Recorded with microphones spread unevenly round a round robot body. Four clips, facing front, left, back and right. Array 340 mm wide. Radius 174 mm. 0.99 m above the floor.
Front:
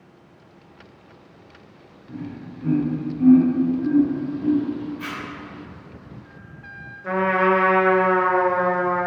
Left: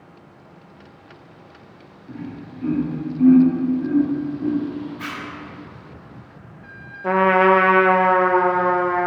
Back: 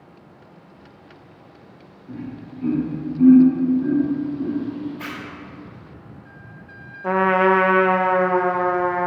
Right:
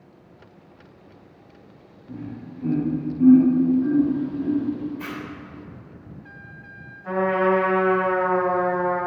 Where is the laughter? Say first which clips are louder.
Left 2 dB, back 1 dB; 145° left, 2.5 m; by 4.6 s 170° right, 0.9 m.